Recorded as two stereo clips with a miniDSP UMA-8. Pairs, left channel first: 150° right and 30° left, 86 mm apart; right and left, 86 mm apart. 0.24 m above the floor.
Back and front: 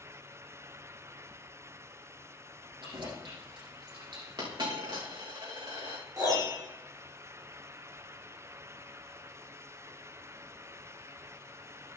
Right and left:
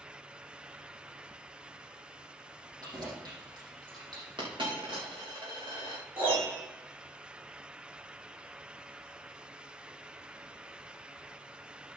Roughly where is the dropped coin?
Ahead left.